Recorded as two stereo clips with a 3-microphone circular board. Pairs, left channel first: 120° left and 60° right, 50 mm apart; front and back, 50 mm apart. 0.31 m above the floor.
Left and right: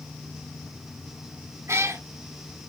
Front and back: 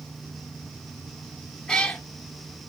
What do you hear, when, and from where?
1.7 s a cat meowing: 75° right, 1.0 m